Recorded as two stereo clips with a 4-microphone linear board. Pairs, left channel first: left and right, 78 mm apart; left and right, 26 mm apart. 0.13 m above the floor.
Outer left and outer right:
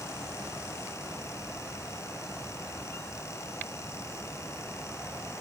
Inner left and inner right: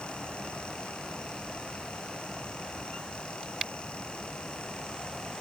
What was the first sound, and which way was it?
Only background noise.